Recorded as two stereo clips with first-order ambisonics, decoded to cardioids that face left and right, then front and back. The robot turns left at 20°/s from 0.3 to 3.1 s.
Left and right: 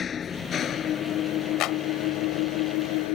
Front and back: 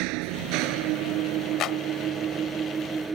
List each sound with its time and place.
0.0 s an engine running: 160° left; by 3.1 s 105° left
1.6 s a clap: 50° left; by 1.8 s 45° left